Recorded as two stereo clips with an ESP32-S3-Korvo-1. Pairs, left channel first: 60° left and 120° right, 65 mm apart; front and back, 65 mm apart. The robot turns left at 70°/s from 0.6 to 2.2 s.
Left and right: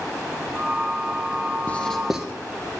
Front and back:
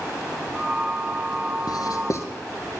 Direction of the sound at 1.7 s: 5° right.